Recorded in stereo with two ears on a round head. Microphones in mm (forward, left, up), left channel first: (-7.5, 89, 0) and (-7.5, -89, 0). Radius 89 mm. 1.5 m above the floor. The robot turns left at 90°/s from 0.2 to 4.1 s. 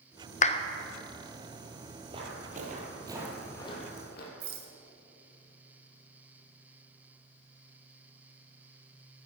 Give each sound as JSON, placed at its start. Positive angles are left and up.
{"t": 0.4, "sound": "a clap", "side_deg": 40, "distance_m": 0.5}
{"t": 2.1, "sound": "footsteps", "side_deg": -20, "distance_m": 1.8}
{"t": 4.4, "sound": "a rattle", "side_deg": -50, "distance_m": 1.9}